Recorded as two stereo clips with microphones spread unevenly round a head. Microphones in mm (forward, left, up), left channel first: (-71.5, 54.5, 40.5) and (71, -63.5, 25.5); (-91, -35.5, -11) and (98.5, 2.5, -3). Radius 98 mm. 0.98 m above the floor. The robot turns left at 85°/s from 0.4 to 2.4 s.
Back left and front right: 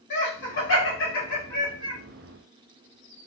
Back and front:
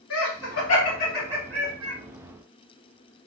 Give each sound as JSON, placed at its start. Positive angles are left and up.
{"t": 0.1, "sound": "laughter", "azimuth_deg": 165, "distance_m": 1.2}